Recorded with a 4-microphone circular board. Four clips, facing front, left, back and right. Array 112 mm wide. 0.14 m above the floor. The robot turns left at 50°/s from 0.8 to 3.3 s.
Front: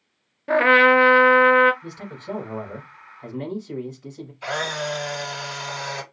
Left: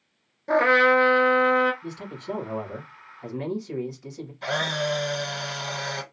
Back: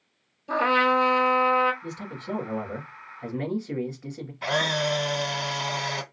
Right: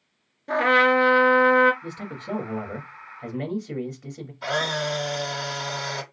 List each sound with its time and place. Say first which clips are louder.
0.5 s a trumpet: left 1 dB, front 6 dB; 15° left, 0.9 m; by 1.7 s 30° right, 0.9 m
1.8 s a man speaking: even, front 1 dB; 70° right, 2.5 m; by 4.3 s 145° right, 2.5 m
4.4 s a camera shutter: right 1 dB, back 1 dB; 170° right, 3 m